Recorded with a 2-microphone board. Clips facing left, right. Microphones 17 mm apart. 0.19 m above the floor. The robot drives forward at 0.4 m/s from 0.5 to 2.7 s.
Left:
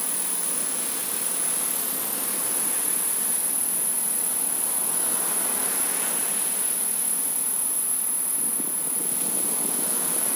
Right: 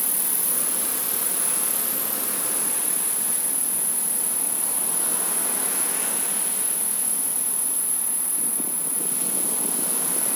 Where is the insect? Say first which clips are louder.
Right 2 dB; 30° left (ahead or behind), 0.9 m; by 10.4 s 15° left (ahead or behind), 1.7 m.